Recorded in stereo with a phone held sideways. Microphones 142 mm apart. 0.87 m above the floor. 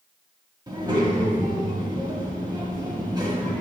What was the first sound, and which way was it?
A child speaking, 30° right (ahead or behind).